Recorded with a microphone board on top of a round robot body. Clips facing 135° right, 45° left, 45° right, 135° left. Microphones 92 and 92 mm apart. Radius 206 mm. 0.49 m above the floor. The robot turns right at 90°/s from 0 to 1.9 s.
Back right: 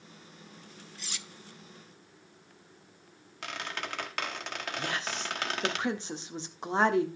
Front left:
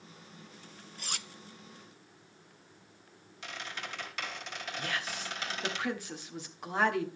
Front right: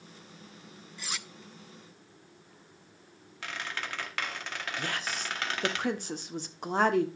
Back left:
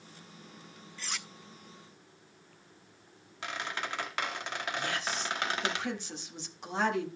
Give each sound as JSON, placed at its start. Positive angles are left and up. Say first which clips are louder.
{"t": 1.0, "sound": "cutlery clinking", "louder": "front left 5 dB, front right 1 dB", "azimuth_deg": 25, "distance_m": 0.7}
{"t": 3.4, "sound": "a squeak", "louder": "back right 4 dB, back left 1 dB", "azimuth_deg": -155, "distance_m": 1.8}
{"t": 4.8, "sound": "a woman speaking", "louder": "back right 2 dB, front right 1 dB", "azimuth_deg": -75, "distance_m": 1.5}